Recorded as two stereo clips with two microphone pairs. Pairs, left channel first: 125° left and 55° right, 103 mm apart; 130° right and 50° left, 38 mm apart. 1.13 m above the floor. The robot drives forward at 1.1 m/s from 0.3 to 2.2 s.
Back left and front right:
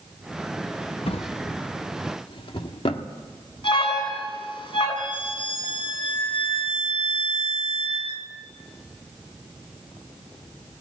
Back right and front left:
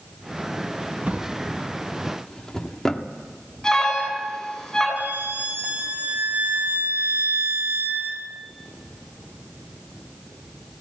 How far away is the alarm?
About 10 m.